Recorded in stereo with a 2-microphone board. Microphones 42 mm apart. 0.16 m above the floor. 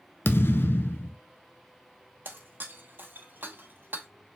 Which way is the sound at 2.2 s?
50° right (ahead or behind).